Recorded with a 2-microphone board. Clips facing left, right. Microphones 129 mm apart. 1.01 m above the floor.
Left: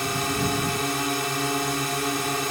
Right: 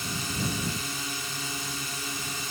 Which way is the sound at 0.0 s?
65° left (ahead or behind).